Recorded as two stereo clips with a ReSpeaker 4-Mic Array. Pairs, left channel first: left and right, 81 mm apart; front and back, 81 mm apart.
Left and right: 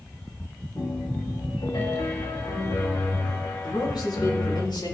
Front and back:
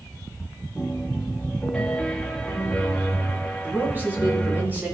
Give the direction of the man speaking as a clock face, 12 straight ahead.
8 o'clock.